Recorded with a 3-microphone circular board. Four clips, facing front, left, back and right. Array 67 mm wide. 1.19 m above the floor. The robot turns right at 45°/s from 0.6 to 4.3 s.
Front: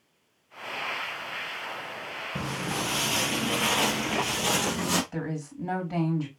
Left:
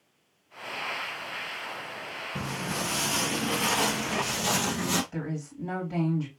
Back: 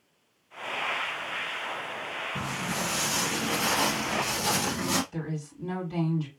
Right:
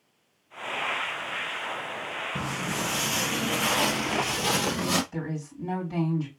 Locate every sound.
2.4 s footsteps: 25° right, 1.7 m; by 5.0 s 55° right, 1.8 m
5.1 s a woman speaking: 5° left, 3 m